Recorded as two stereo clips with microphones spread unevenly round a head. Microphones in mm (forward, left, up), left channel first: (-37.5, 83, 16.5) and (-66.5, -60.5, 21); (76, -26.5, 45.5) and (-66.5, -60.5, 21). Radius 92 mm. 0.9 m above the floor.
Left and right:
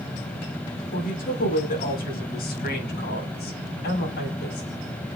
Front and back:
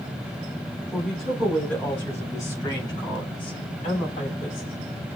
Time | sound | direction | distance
0.9 | a woman speaking | 105° left | 4.5 m